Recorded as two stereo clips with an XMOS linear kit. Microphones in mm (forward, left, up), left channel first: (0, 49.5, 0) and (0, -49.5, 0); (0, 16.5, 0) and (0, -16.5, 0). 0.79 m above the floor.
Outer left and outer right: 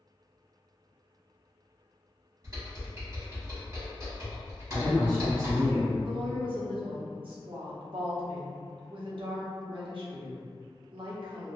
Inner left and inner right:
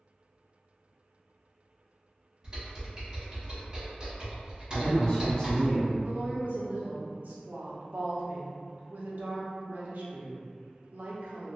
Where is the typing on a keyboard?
30° right (ahead or behind), 1.2 m.